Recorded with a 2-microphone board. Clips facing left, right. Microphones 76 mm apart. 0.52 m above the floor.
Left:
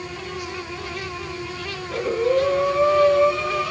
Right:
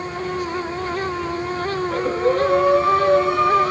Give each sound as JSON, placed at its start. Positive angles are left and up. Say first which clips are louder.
{"t": 1.8, "sound": "breathing", "louder": "even", "side_deg": -55, "distance_m": 3.0}